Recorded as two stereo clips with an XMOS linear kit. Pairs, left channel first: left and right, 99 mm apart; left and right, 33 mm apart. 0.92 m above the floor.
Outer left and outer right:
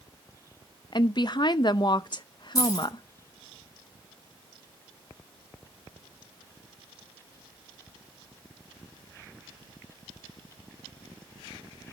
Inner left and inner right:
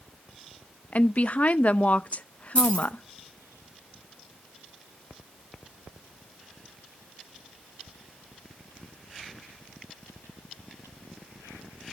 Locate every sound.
0.9 s a woman speaking: 50° left (ahead or behind), 0.5 m
2.5 s keys jangling: 40° left (ahead or behind), 7 m